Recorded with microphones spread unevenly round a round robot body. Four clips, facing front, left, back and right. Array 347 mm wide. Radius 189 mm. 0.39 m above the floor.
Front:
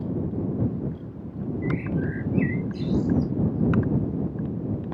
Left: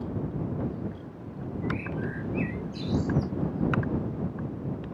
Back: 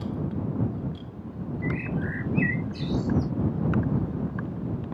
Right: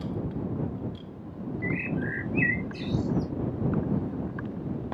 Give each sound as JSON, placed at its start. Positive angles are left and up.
{"t": 1.6, "sound": "a bird", "azimuth_deg": -175}